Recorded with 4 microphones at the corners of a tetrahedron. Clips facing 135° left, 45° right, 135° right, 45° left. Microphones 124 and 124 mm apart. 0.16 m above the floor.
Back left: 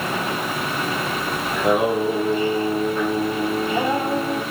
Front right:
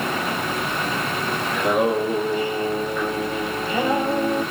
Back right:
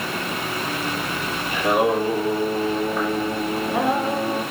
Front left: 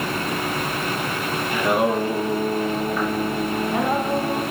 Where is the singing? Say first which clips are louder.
Back left 1 dB, back right 1 dB; 165° left, 2 m.